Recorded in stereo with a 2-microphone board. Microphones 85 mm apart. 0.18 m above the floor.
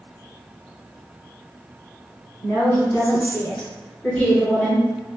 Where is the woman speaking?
25° left (ahead or behind), 1.9 m; by 4.8 s 10° left (ahead or behind), 2 m.